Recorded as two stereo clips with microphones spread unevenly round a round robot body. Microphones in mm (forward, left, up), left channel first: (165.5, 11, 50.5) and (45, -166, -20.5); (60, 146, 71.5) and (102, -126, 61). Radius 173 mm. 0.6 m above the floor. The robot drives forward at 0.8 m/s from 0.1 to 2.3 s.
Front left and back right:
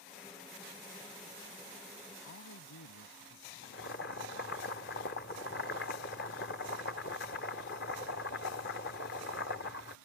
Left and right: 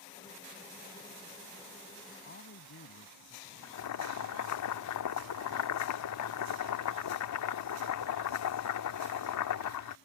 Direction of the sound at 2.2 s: 50° left.